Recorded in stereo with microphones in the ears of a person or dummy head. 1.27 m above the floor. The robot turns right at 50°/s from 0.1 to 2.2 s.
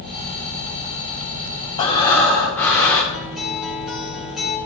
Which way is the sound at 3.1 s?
5° left (ahead or behind).